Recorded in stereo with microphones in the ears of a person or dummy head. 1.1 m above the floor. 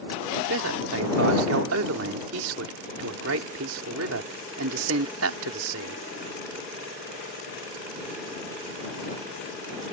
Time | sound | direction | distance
0.5 | a man speaking | 80° right | ?